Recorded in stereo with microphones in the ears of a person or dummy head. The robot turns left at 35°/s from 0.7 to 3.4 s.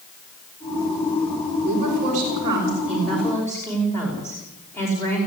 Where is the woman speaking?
130° right, 5.5 m; by 5.2 s 170° left, 5.5 m.